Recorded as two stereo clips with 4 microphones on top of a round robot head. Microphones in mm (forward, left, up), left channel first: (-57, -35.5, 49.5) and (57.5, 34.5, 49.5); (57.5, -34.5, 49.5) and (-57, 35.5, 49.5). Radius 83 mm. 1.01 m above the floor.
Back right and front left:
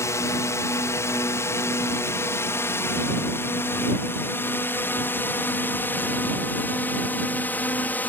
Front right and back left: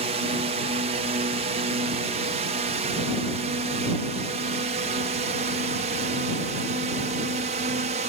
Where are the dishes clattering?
No dishes clattering in this recording.